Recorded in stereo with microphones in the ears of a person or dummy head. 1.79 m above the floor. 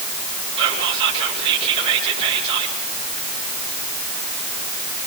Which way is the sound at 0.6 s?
30° right (ahead or behind).